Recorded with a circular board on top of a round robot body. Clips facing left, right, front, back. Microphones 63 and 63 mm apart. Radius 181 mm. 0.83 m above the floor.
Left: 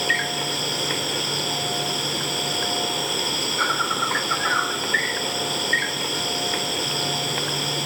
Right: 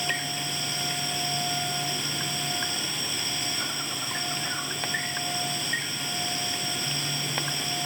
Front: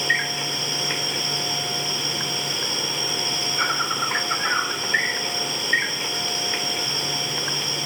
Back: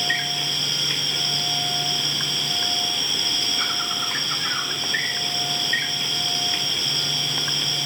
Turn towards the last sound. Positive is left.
turn(degrees=65)